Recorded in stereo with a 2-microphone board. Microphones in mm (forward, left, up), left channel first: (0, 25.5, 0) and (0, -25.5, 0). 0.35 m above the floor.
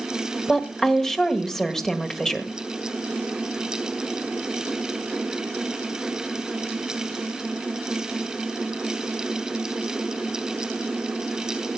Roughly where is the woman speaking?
Centre.